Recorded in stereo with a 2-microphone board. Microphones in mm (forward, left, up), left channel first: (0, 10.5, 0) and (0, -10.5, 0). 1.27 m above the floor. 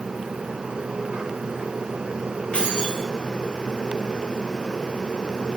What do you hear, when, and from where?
2.5 s keys jangling: 70° left (ahead or behind), 4.5 m